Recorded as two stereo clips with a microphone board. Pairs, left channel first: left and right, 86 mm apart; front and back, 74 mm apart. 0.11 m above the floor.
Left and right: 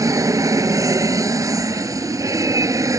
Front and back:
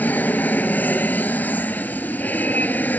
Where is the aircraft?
60° right.